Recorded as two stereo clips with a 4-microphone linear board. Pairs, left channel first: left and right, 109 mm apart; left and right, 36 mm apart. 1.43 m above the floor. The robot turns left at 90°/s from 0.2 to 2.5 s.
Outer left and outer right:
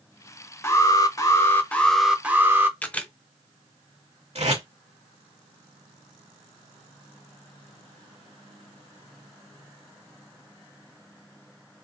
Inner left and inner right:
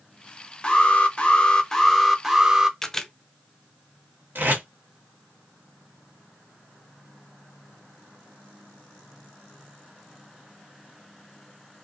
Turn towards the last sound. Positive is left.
turn(degrees=-80)